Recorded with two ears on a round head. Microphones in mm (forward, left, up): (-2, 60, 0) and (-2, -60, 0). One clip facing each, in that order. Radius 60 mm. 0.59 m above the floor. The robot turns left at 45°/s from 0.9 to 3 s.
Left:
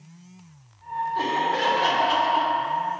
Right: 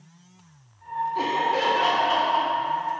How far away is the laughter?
About 0.7 m.